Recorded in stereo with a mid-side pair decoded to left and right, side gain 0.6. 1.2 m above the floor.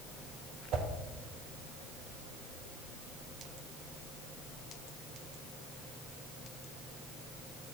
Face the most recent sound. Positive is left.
turn(degrees=-60)